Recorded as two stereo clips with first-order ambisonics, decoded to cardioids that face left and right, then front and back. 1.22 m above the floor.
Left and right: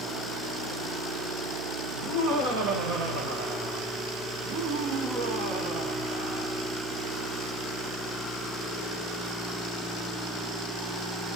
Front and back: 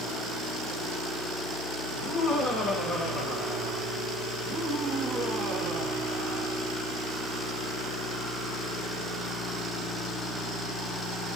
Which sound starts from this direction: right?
Laughter, at 1.9 s.